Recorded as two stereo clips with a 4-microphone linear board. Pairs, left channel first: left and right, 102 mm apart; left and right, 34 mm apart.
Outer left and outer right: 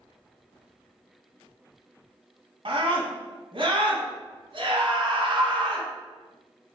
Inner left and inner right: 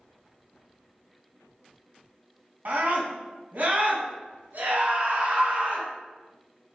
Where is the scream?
60° right (ahead or behind), 2.5 m.